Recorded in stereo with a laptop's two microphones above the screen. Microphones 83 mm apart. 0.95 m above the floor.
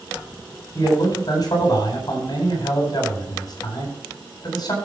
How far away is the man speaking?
About 7 m.